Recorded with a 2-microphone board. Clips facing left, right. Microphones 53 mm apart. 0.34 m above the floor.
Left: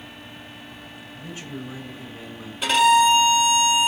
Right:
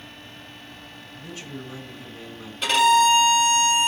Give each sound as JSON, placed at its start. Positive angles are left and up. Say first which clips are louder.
{"t": 1.1, "sound": "a man speaking", "louder": "left 2 dB", "side_deg": 20, "distance_m": 1.3}
{"t": 2.6, "sound": "a violin", "louder": "left 1 dB", "side_deg": 5, "distance_m": 1.4}